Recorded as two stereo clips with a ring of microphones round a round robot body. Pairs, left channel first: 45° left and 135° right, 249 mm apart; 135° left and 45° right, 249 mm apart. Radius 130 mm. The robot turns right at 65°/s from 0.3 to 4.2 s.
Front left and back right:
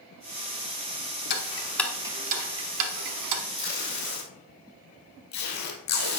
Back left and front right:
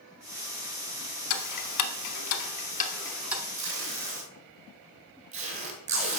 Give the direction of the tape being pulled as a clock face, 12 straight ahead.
1 o'clock.